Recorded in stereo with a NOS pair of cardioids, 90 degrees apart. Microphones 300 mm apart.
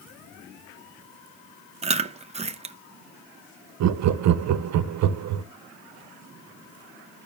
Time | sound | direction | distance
1.8 | chewing | 20° right | 0.7 m
3.8 | laughter | 65° right | 0.7 m